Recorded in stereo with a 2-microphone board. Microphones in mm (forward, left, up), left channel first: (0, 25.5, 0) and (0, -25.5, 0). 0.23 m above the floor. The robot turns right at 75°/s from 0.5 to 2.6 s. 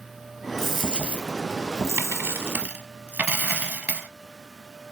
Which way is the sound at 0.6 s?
170° left.